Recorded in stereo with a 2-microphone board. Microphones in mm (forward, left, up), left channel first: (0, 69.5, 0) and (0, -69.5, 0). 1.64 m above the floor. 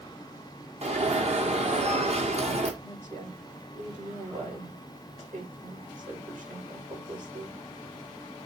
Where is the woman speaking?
60° right (ahead or behind), 7 m.